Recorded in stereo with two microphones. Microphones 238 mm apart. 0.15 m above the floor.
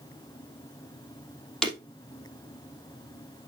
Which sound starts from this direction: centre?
Breaking glass, at 1.6 s.